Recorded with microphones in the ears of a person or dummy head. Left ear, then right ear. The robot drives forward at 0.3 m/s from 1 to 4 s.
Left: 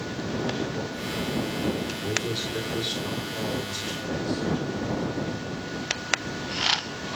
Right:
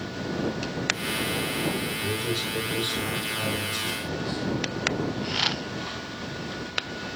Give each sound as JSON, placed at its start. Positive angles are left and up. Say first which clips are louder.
{"t": 2.0, "sound": "a man speaking", "louder": "left 2 dB", "side_deg": 0, "distance_m": 3.0}